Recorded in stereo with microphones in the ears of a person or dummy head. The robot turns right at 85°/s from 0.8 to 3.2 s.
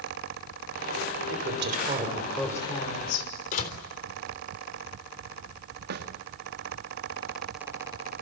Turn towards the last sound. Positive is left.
turn(degrees=-65)  # may be behind; listen again after turning